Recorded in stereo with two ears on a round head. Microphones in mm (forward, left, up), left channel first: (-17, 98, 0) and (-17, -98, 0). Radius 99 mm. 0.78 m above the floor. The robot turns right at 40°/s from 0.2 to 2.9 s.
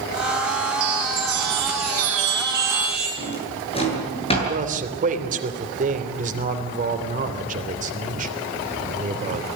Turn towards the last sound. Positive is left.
turn(degrees=-40)  # may be behind; listen again after turning